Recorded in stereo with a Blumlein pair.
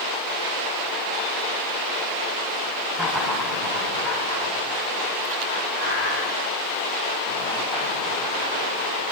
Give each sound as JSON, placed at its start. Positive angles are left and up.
{"t": 2.9, "sound": "laughter", "azimuth_deg": 10, "distance_m": 1.2}